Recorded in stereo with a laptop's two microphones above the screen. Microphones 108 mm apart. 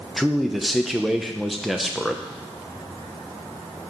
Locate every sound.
0.2 s a man speaking: centre (ahead or behind), 0.6 m